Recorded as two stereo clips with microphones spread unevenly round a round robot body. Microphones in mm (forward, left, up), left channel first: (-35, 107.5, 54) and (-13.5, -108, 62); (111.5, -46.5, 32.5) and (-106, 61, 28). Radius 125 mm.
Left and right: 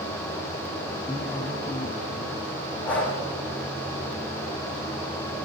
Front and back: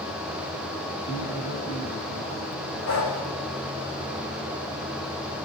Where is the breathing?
10° left, 6.5 m.